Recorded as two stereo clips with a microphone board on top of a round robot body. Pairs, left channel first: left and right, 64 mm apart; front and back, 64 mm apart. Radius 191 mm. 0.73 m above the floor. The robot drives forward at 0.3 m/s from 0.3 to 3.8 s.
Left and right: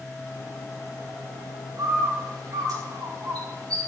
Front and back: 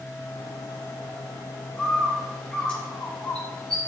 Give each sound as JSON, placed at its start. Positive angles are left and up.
{"t": 1.8, "sound": "a bird", "azimuth_deg": -70, "distance_m": 7.5}